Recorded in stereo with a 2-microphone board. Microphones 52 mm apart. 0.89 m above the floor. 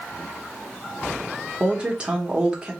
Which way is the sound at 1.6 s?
20° right (ahead or behind).